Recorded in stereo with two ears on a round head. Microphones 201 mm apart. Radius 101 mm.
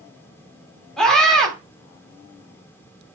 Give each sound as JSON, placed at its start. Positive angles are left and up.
{"t": 1.0, "sound": "a scream", "side_deg": 5, "distance_m": 4.0}